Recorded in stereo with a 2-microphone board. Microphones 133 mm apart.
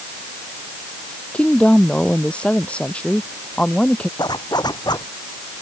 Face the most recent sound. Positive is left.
turn(degrees=30)  # may be behind; listen again after turning